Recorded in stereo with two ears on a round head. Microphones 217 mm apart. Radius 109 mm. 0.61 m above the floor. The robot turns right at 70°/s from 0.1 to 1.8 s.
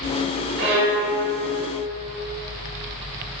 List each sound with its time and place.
0.6 s a violin: 65° right, 0.9 m; by 1.1 s 30° right, 0.9 m